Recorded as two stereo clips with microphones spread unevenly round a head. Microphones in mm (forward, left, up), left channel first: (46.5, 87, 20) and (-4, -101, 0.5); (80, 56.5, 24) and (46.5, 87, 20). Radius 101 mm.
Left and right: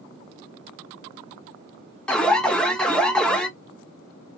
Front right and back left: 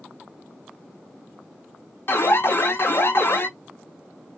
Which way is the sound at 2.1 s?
15° right.